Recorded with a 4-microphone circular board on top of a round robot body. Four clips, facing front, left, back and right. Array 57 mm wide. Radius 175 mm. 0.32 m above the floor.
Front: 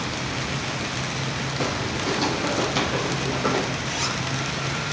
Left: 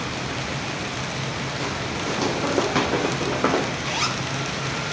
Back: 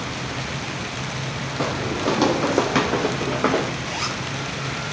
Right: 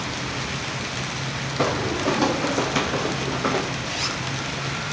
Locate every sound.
1.6 s footsteps: 120° right, 0.8 m; by 3.7 s 135° left, 2 m
3.8 s a zipper: 115° left, 1.5 m